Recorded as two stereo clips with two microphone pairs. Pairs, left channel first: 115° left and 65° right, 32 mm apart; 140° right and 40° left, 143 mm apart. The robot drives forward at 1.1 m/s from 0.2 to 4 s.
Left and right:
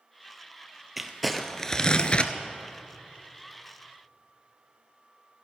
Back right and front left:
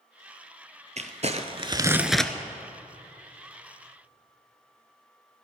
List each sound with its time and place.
1.0 s crumpling: 20° left, 1.2 m; by 2.3 s 145° left, 0.8 m